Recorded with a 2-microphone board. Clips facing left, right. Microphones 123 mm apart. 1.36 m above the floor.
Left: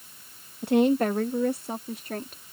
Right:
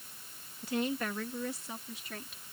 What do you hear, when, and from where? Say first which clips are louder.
0.6 s a woman speaking: left 12 dB; 65° left (ahead or behind); by 2.4 s 55° left (ahead or behind)